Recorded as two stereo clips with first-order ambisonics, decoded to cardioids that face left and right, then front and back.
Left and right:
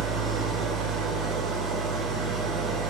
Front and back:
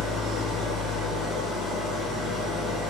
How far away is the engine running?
About 1.3 m.